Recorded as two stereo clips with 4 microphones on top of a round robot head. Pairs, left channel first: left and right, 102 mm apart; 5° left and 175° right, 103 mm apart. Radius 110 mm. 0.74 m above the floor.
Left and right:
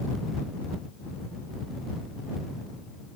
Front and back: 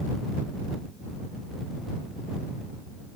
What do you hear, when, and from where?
Only background noise.